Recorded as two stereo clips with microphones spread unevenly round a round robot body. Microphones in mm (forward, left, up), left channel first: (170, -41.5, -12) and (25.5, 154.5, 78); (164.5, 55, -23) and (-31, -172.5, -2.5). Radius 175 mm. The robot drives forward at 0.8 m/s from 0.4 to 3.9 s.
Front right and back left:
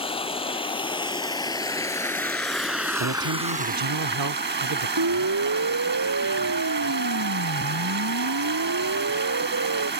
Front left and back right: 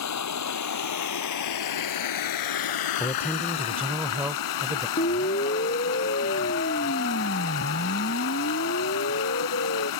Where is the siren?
120° left; by 9.9 s 110° left.